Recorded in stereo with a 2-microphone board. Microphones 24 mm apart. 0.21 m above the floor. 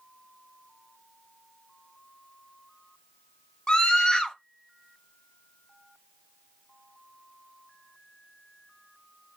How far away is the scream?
About 1.3 m.